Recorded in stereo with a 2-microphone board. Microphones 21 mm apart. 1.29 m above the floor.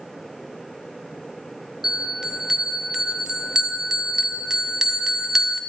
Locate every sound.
1.8 s a bell: 25° right (ahead or behind), 0.5 m